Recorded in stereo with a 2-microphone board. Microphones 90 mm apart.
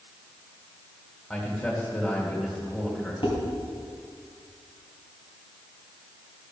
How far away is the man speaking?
About 2 m.